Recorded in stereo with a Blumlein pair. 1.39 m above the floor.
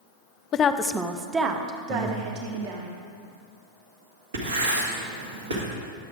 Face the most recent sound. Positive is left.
turn(degrees=-65)